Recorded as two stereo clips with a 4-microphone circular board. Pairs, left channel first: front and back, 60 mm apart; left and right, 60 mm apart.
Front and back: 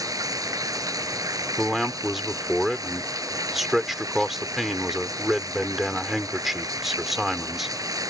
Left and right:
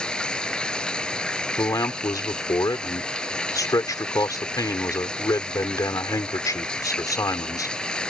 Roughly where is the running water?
Behind.